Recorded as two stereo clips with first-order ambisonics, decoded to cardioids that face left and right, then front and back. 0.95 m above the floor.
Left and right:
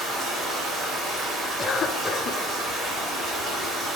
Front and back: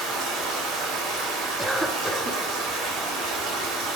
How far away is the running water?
About 3 m.